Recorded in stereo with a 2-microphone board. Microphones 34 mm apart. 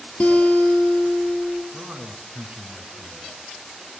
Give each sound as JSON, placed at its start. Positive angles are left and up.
{"t": 0.2, "sound": "a guitar", "side_deg": 50, "distance_m": 2.5}
{"t": 1.7, "sound": "a man speaking", "side_deg": -40, "distance_m": 2.5}